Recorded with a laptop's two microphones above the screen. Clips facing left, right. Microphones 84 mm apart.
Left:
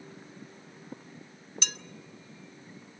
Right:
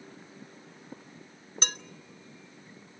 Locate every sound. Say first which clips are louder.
1.6 s dishes clattering: right 5 dB; 40° right (ahead or behind), 1.5 m